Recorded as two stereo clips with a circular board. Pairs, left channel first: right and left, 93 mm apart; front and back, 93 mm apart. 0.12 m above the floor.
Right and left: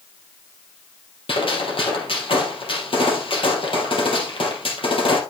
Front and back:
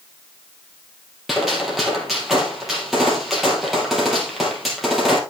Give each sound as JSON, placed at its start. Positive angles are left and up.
{"t": 1.3, "sound": "a gunshot", "azimuth_deg": -90, "distance_m": 3.5}